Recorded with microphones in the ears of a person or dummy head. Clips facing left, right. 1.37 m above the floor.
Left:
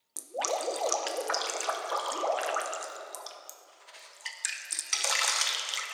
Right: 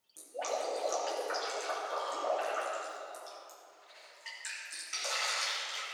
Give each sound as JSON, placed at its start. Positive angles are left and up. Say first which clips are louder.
{"t": 0.2, "sound": "dripping", "louder": "left 3 dB", "side_deg": 80, "distance_m": 0.9}